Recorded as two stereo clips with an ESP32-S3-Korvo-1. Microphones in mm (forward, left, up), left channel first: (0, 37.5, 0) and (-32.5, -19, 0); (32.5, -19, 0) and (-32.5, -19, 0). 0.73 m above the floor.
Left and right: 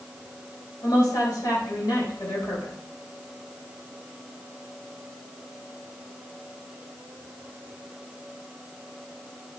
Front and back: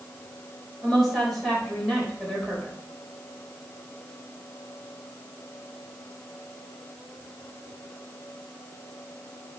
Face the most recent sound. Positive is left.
turn(degrees=85)